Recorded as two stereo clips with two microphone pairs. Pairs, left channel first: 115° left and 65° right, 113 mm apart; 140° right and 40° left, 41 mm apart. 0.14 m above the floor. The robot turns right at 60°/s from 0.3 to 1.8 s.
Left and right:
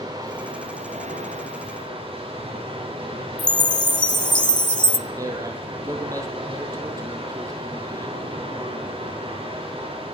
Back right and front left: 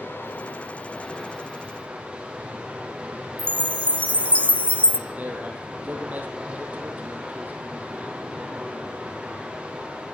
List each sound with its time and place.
0.0 s running water: 115° right, 8.5 m; by 10.1 s 25° right, 8.5 m
3.4 s a chime: 165° left, 0.8 m
5.1 s a man speaking: 5° right, 4 m